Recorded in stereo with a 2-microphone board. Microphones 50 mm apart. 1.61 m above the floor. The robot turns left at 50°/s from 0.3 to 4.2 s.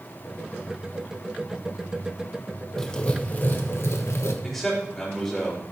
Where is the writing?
170° left, 1.1 m; by 4.3 s 95° left, 1.1 m.